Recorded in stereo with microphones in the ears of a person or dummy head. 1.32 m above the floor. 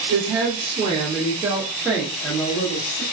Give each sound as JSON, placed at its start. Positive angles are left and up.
{"t": 0.1, "sound": "a woman speaking", "side_deg": -70, "distance_m": 1.1}